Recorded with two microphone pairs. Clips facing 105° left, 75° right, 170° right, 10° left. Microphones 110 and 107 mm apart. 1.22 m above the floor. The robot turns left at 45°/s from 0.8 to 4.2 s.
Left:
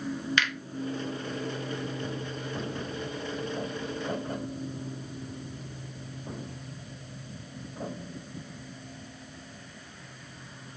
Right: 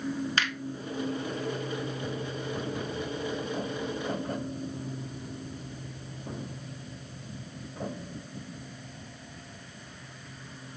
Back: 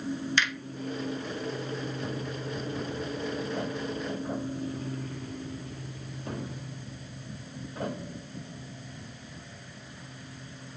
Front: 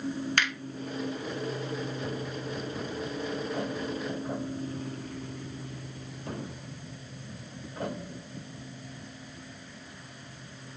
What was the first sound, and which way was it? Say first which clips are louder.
A finger snap: left 1 dB, back 1 dB; 25° right.